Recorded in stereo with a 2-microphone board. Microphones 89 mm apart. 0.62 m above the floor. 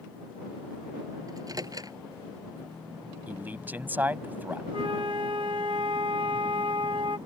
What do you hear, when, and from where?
1.3 s a microwave: 45° right (ahead or behind)
3.3 s a man speaking: 20° right (ahead or behind)
4.7 s a flute: 65° right (ahead or behind)